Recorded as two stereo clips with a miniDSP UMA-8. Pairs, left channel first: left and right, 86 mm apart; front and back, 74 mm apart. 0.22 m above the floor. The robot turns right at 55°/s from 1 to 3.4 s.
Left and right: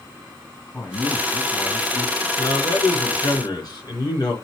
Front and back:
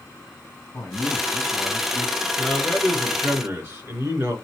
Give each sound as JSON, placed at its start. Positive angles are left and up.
{"t": 0.7, "sound": "a man speaking", "azimuth_deg": 25, "distance_m": 1.7}
{"t": 2.4, "sound": "a man speaking", "azimuth_deg": 70, "distance_m": 3.5}